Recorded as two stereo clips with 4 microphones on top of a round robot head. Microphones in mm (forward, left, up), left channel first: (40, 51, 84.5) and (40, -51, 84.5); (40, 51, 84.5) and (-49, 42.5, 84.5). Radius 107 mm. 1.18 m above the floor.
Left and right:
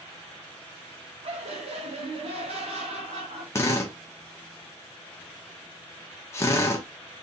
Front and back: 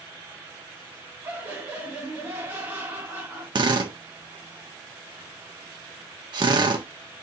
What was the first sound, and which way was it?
Laughter, 110° right.